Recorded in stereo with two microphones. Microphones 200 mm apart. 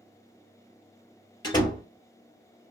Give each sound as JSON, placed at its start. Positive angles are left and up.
{"t": 1.4, "sound": "a door slam", "side_deg": 20, "distance_m": 1.0}